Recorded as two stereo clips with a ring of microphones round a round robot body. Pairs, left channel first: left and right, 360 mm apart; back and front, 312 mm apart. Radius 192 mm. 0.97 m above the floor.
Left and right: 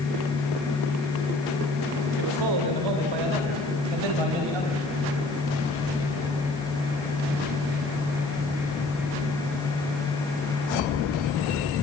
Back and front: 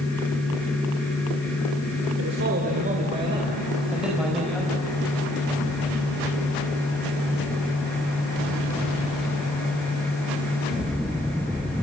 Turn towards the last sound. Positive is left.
turn(degrees=-95)